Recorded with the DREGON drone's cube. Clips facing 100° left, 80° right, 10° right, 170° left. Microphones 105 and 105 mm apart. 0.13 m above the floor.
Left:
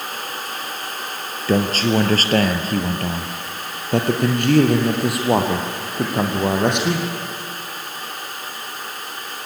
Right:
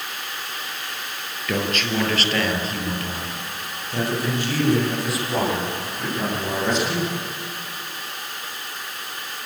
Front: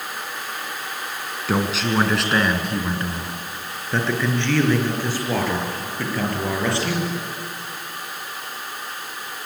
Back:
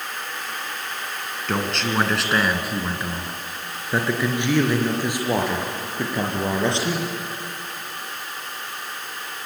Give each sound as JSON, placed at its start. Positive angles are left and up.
{"t": 1.5, "sound": "a man speaking", "azimuth_deg": 70, "distance_m": 2.0}